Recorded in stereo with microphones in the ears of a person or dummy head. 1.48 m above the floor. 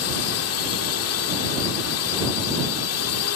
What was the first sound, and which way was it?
A drone, 75° left (ahead or behind).